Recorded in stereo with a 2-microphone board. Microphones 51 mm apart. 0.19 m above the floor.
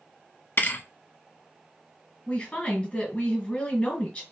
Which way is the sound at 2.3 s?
25° left (ahead or behind).